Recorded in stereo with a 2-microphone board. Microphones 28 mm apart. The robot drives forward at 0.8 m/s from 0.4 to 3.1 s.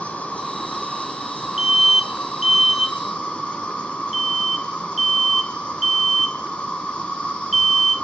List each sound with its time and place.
0.0 s an insect: 65° left (ahead or behind), 2 m; by 8.1 s 40° left (ahead or behind), 3 m
1.6 s an alarm: 10° right (ahead or behind), 0.6 m; by 8.0 s 5° right (ahead or behind), 1.0 m